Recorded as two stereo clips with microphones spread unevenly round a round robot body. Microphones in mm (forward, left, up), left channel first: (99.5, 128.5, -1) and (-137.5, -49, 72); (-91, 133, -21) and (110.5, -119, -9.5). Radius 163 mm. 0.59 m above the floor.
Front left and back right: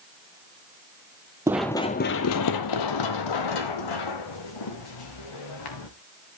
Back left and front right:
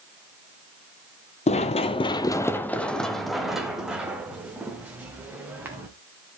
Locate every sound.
1.5 s running footsteps: straight behind, 0.6 m; by 5.9 s 35° left, 2.5 m